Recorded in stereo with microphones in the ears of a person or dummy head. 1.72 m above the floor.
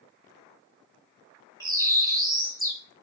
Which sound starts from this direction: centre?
A bird, at 1.6 s.